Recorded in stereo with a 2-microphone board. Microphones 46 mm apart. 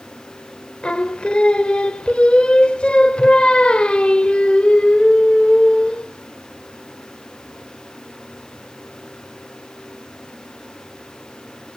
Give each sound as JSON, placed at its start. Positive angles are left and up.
{"t": 0.8, "sound": "singing", "side_deg": 25, "distance_m": 0.9}